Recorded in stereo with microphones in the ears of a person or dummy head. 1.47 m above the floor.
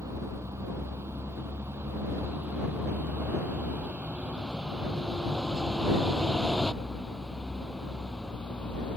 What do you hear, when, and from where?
0.0 s a vehicle: 15° right (ahead or behind); by 9.0 s 5° left (ahead or behind)